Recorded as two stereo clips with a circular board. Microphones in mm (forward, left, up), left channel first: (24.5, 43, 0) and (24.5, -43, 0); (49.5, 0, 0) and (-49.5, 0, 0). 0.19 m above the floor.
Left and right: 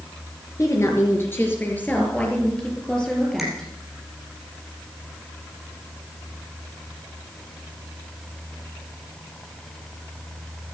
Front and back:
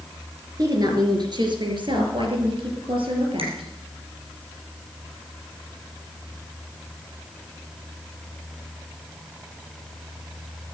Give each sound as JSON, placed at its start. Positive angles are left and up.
{"t": 0.6, "sound": "a woman speaking", "azimuth_deg": 135, "distance_m": 3.5}
{"t": 3.4, "sound": "a finger snap", "azimuth_deg": 180, "distance_m": 4.5}